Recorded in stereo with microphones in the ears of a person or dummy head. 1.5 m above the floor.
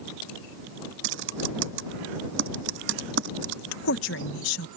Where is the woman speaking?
70° left (ahead or behind).